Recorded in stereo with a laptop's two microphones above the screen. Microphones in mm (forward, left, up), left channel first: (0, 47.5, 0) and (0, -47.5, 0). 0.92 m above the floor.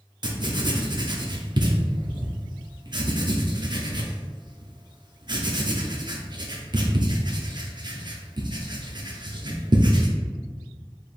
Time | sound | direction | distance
0.2 | writing | 50° right (ahead or behind) | 0.7 m